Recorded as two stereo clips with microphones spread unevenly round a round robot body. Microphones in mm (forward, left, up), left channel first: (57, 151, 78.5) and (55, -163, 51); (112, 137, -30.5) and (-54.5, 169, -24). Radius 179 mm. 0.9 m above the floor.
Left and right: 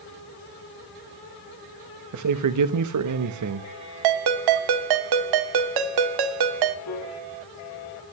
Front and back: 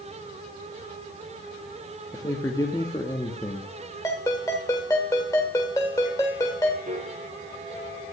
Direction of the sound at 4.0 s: 90° right.